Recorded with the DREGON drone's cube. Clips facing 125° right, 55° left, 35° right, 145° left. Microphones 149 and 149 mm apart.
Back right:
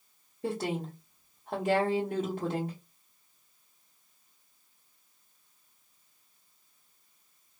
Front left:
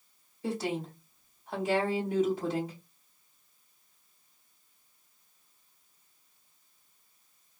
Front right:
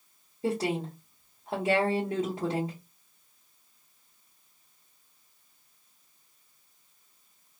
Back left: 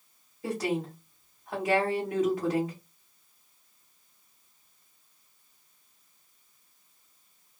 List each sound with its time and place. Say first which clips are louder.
0.4 s a woman speaking: even, front right 1 dB; 95° right, 1.6 m